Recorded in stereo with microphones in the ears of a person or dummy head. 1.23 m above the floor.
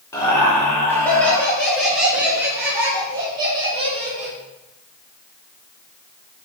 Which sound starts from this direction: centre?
Laughter, at 0.1 s.